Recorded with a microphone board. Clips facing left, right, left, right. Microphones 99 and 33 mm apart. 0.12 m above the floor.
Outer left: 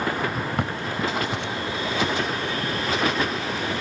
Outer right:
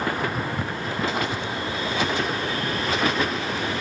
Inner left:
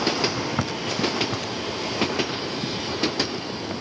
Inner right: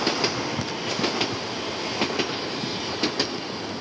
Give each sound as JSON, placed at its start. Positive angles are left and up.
{"t": 0.6, "sound": "footsteps", "side_deg": 80}